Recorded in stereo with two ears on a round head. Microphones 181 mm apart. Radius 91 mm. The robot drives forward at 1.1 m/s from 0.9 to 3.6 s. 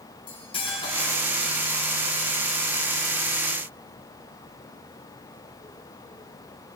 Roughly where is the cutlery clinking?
Left.